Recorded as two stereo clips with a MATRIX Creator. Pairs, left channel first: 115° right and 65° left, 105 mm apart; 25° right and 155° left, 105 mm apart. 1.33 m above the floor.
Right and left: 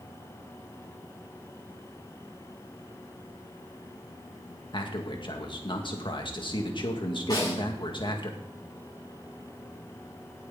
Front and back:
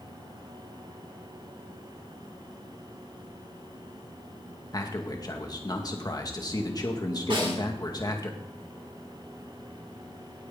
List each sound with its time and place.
4.7 s a man speaking: 75° right, 2 m
7.3 s a snare drum: 165° right, 7 m